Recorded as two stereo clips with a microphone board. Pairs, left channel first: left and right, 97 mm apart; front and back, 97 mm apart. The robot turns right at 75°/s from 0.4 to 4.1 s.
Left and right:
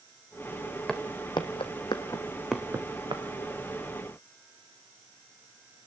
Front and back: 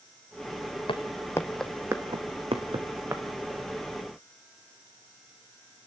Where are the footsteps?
5° left, 1.6 m; by 3.2 s 110° right, 2.5 m.